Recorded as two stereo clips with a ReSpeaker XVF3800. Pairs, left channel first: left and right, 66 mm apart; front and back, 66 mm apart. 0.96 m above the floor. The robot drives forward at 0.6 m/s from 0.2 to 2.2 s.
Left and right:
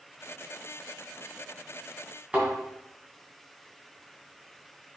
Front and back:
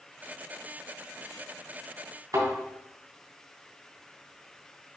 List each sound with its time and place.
2.3 s a thud: 165° right, 3 m